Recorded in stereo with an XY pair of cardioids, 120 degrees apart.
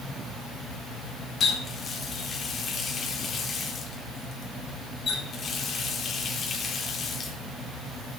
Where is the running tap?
40° left, 3.5 m.